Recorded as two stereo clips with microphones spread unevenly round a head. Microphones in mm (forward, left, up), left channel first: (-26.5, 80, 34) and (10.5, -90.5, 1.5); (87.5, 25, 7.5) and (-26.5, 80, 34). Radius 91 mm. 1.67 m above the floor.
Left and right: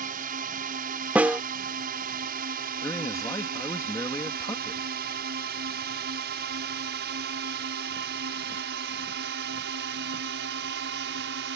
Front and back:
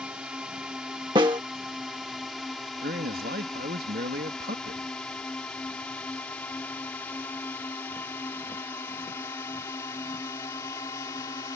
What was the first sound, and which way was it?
A drone, 120° right.